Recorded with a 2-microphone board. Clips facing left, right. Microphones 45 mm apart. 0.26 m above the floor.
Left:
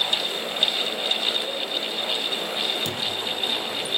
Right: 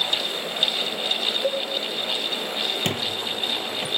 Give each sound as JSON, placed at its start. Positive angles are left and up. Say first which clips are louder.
{"t": 1.4, "sound": "a cowbell", "louder": "right 5 dB", "side_deg": -75, "distance_m": 6.5}
{"t": 2.9, "sound": "a squeak", "louder": "right 1 dB", "side_deg": -55, "distance_m": 4.5}